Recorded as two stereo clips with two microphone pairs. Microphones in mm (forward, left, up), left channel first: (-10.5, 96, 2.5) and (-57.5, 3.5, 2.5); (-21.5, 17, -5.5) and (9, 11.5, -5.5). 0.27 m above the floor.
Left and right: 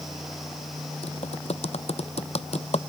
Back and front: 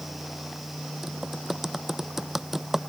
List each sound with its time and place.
1.0 s typing on a keyboard: 70° left